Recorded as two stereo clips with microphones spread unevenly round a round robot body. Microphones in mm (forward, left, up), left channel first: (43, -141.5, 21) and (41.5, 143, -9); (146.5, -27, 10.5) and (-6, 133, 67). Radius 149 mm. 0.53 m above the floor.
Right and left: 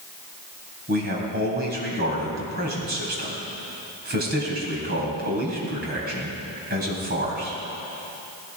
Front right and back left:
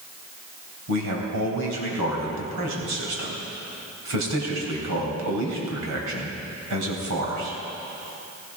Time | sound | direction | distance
0.9 | a man speaking | 150° left | 3.5 m